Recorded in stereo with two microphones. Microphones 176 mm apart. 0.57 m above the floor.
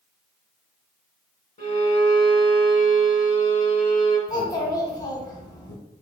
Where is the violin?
45° left (ahead or behind), 1.1 m.